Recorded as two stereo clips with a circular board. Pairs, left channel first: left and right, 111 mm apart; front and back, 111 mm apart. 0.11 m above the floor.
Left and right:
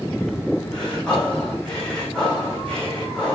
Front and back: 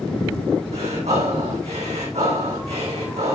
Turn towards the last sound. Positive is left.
turn(degrees=170)